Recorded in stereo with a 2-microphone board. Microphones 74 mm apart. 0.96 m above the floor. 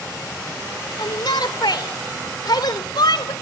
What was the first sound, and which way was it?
A shout, 75° left (ahead or behind).